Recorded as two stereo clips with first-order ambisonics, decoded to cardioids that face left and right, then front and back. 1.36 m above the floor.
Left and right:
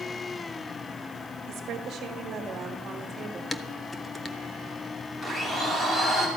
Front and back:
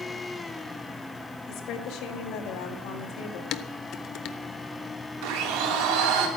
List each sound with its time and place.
1.5 s a woman speaking: 40° right, 1.8 m; by 3.4 s 15° right, 2.5 m
3.5 s dishes clattering: 10° left, 0.6 m
5.2 s a blender: 165° left, 2.5 m